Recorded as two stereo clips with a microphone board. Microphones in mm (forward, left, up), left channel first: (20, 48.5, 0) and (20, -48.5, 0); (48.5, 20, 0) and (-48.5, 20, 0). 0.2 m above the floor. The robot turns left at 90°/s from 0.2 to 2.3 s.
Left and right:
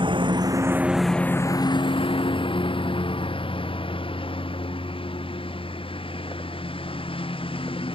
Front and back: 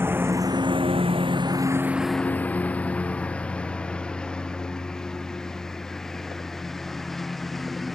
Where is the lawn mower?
115° right; by 8.0 s 90° left.